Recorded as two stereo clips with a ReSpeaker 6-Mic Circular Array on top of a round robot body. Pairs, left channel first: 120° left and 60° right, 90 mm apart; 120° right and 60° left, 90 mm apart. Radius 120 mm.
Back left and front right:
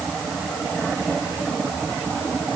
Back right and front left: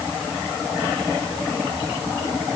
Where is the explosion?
No explosion in this recording.